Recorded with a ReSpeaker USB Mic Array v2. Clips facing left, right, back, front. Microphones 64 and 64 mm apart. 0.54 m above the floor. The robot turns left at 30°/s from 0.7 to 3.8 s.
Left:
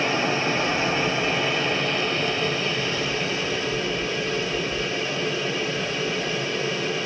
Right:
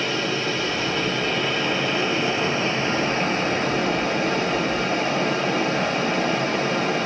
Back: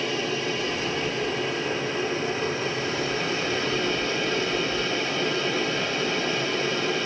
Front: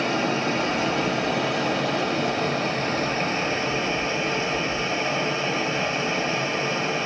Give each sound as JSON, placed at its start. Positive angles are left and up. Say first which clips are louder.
{"t": 0.0, "sound": "running water", "louder": "left 1 dB, front 4 dB", "azimuth_deg": 25, "distance_m": 1.7}